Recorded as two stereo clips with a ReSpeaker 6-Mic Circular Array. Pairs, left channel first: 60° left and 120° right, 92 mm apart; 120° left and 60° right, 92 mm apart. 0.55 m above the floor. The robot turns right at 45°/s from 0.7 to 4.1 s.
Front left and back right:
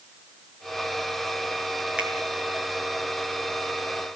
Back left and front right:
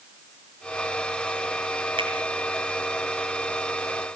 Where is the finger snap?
40° right, 5.5 m; by 2.1 s 35° right, 5.5 m.